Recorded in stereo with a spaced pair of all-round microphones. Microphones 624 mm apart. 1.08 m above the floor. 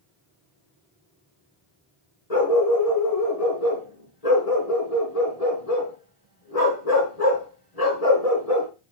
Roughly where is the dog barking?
Left.